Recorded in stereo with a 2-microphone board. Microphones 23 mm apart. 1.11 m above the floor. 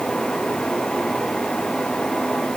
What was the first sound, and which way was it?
Only background noise.